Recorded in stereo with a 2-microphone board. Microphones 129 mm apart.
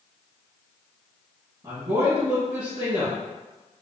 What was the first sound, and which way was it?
A woman speaking, 30° right (ahead or behind).